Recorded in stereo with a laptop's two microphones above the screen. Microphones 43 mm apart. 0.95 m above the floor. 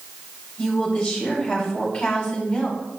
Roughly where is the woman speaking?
Left.